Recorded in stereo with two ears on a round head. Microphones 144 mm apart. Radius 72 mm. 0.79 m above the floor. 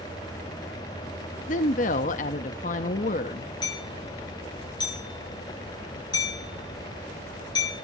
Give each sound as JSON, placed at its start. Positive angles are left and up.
{"t": 1.5, "sound": "a woman speaking", "side_deg": 50, "distance_m": 0.9}
{"t": 3.6, "sound": "hammering", "side_deg": 30, "distance_m": 5.5}